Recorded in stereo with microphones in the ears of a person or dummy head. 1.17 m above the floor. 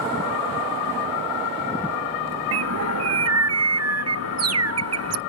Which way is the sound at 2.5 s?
80° right.